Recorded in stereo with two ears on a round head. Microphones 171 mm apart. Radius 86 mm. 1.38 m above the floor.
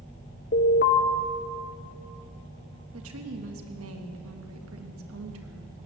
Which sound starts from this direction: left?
An alarm, at 0.5 s.